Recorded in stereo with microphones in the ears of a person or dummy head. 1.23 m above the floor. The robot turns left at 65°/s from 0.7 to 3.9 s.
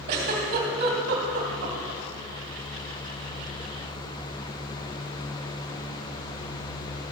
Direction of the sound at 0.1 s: 55° right (ahead or behind).